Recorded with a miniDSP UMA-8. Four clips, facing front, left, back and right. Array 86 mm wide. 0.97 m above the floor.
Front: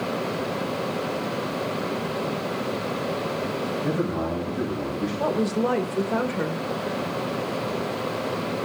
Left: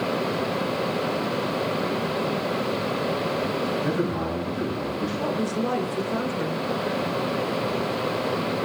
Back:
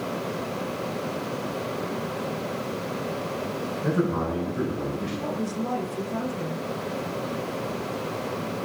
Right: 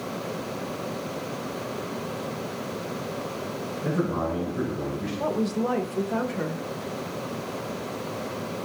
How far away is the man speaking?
About 5 m.